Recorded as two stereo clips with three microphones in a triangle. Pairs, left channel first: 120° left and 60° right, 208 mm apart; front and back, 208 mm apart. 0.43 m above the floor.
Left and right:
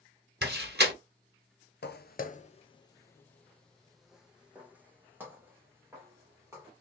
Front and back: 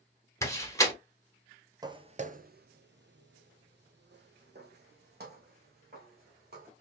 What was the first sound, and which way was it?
A door slam, 75° right.